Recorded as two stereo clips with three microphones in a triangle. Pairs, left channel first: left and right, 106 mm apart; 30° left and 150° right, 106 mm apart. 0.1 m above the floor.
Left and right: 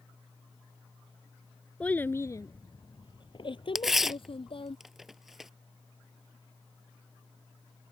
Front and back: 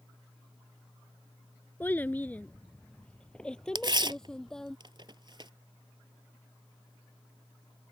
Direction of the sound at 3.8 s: 175° right.